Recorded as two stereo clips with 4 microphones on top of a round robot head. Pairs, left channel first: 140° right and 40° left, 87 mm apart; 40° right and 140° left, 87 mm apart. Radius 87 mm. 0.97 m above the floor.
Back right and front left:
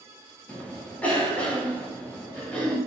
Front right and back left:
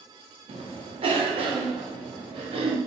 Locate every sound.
0.5 s a cough: 145° left, 1.0 m